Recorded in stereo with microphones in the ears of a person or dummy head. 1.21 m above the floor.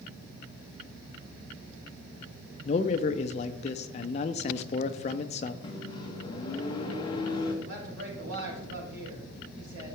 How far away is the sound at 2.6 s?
About 0.6 m.